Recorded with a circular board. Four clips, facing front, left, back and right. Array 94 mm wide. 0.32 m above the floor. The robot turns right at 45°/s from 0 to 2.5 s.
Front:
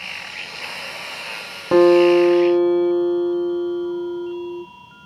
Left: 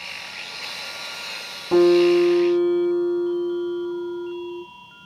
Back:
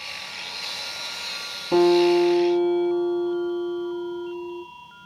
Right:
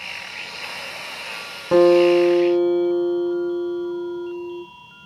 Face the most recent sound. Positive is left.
turn(degrees=20)